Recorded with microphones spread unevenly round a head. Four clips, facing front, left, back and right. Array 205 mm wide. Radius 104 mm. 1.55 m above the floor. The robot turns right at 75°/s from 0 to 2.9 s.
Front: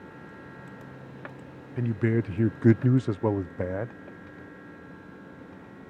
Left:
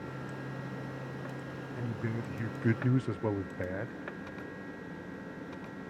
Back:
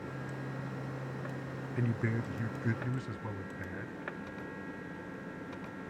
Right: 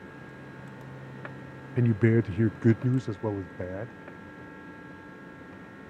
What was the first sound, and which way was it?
A man speaking, 90° right.